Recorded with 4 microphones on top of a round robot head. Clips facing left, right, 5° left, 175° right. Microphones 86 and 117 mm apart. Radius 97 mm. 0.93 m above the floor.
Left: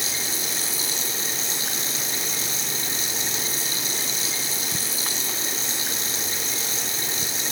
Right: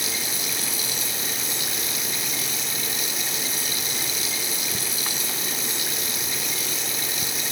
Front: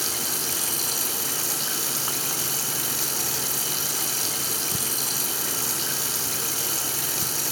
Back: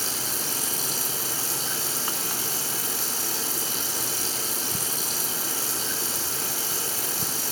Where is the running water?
30° left, 6 m.